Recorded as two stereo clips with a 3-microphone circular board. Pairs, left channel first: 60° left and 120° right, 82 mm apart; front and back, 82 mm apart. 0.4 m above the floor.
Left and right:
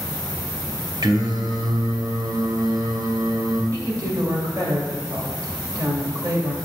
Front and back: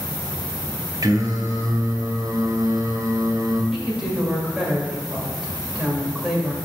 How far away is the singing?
About 0.8 m.